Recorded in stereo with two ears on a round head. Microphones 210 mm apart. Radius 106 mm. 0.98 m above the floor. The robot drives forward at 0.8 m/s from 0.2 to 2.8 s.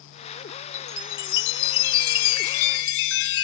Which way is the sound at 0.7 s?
45° left (ahead or behind).